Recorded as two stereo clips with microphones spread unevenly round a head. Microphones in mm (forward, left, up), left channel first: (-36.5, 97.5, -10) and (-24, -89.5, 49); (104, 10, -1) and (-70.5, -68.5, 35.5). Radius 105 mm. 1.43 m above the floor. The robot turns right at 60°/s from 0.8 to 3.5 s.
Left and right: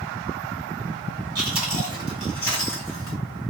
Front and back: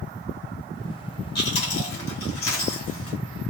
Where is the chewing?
15° right, 1.5 m; by 3.2 s 95° left, 1.5 m.